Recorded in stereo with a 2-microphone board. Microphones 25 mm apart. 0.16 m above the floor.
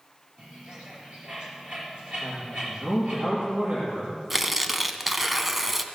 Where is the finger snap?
No finger snap in this recording.